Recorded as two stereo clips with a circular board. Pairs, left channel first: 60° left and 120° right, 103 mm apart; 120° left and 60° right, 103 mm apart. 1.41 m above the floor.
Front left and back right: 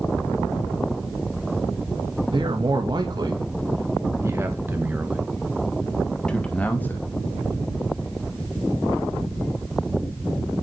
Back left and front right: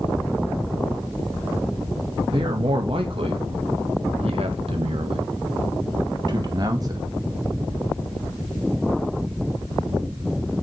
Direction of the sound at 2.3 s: 85° right.